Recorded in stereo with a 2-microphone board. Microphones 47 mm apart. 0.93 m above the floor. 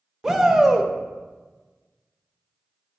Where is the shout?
15° right (ahead or behind), 0.7 m.